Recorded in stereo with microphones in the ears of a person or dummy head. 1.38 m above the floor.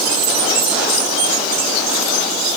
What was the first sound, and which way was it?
Only background noise.